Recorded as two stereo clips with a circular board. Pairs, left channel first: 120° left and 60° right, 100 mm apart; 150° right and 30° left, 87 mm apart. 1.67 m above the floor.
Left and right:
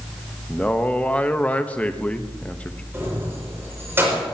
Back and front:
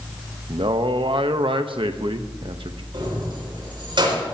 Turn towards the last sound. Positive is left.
turn(degrees=5)